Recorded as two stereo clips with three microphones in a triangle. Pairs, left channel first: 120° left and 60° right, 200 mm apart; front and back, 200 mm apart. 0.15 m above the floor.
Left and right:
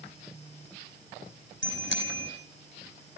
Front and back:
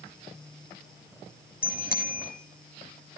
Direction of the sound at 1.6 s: 35° right.